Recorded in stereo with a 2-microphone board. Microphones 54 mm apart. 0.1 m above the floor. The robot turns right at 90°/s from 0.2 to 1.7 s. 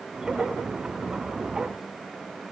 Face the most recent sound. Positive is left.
No sound to turn to.